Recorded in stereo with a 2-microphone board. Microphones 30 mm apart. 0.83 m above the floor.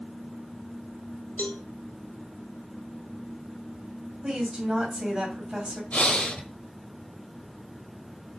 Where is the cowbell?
65° left (ahead or behind), 1.2 m.